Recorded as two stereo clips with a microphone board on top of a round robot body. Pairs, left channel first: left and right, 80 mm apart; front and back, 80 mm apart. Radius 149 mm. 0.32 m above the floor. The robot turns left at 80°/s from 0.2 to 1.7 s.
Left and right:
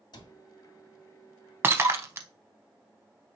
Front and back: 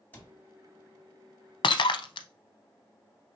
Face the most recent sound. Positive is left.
turn(degrees=-30)